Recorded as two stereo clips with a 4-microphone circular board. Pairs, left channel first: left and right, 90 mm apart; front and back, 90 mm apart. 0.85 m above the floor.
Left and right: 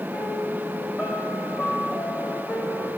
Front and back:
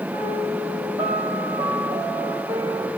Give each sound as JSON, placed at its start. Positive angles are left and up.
{"t": 0.1, "sound": "a piano", "azimuth_deg": 165, "distance_m": 3.5}